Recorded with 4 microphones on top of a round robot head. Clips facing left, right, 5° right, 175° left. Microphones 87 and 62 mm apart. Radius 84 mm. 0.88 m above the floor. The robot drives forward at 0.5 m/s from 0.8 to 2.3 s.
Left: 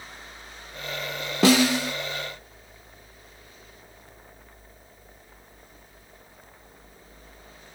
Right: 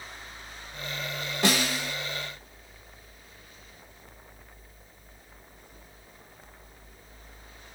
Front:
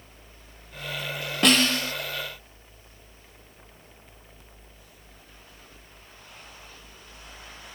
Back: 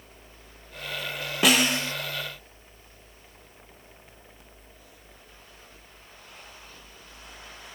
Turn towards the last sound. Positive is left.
turn(degrees=125)